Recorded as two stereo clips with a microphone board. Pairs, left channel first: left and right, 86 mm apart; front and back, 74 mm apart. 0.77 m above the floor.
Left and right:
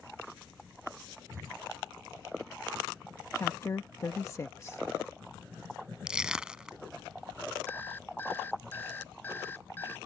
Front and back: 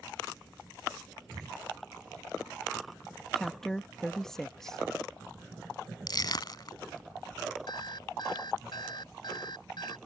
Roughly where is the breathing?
Behind right.